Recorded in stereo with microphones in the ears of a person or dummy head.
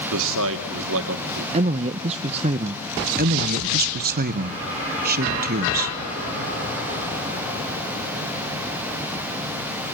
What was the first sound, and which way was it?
A man speaking, 70° right (ahead or behind).